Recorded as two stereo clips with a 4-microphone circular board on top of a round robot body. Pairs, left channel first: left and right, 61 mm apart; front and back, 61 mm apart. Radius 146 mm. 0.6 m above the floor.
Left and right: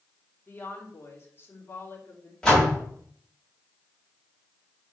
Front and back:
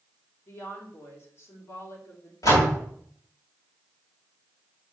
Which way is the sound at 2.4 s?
10° left.